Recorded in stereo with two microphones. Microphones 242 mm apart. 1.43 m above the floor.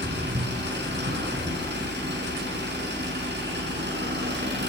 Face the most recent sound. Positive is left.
turn(degrees=-45)  # may be behind; listen again after turning